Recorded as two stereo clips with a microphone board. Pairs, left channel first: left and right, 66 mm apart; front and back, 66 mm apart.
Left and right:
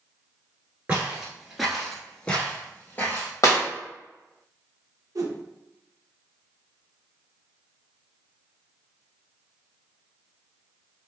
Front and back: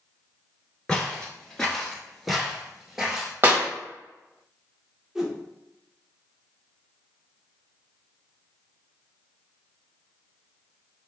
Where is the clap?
120° left, 1.1 m.